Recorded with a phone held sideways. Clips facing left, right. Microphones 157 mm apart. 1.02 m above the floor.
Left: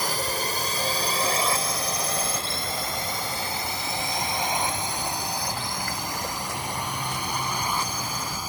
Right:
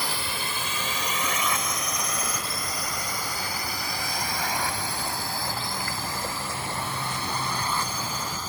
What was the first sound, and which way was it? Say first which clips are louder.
A drone: left 4 dB; 40° left (ahead or behind).